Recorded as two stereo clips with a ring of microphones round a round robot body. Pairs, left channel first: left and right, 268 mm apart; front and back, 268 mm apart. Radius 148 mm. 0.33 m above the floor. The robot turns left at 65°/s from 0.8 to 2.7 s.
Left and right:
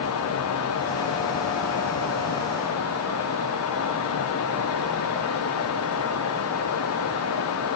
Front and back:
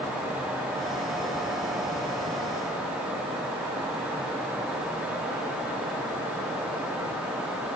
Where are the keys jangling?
No keys jangling in this recording.